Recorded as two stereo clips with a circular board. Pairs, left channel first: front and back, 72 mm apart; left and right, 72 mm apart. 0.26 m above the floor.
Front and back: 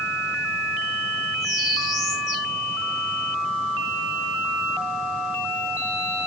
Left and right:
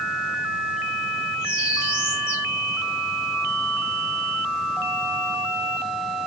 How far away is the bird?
About 6 m.